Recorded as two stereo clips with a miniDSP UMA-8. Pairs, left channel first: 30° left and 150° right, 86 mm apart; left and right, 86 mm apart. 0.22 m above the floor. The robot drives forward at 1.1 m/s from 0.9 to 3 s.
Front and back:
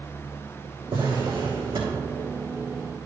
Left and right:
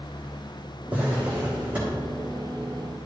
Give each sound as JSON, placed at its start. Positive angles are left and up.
{"t": 0.9, "sound": "a drawer", "azimuth_deg": -160, "distance_m": 3.5}